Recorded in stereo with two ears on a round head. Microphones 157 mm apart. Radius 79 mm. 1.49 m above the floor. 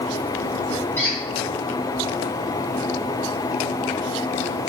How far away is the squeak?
About 1.2 m.